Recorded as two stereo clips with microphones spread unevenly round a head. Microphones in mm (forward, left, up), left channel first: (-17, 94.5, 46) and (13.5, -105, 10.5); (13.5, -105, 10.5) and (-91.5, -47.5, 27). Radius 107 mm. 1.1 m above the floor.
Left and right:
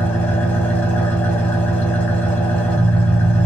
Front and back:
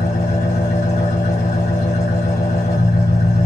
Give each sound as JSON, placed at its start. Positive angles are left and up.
{"t": 0.0, "sound": "an engine running", "azimuth_deg": 20, "distance_m": 1.1}